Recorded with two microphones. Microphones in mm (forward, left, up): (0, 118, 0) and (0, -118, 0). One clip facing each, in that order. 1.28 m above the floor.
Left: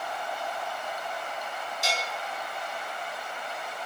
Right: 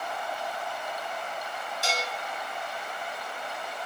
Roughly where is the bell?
Right.